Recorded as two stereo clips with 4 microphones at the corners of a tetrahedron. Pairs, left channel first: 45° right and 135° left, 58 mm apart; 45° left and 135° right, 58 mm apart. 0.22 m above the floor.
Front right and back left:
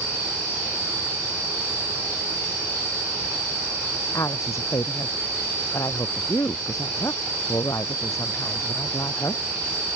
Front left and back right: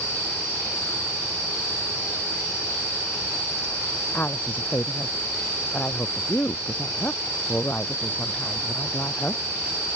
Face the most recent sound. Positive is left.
turn(degrees=-15)